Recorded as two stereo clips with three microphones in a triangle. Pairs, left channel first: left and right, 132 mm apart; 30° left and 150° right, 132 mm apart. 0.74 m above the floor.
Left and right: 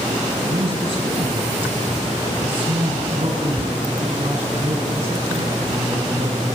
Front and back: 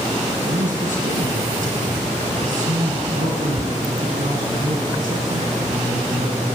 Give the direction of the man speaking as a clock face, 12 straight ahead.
5 o'clock.